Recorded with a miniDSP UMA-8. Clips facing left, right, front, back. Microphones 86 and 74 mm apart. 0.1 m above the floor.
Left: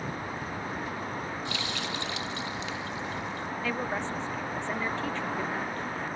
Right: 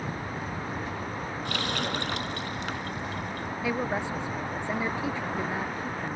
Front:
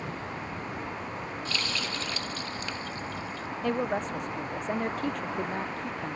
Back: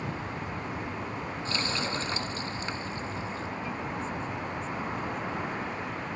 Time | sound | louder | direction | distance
1.4 | a running tap | right 4 dB, back 3 dB | 120° right | ?
3.6 | a woman speaking | right 3 dB, front 6 dB | 10° right | ?